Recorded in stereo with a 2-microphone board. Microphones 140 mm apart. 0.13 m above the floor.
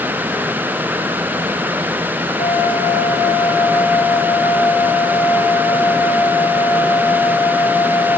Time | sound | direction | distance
2.4 | a flute | 55° left (ahead or behind) | 3.5 m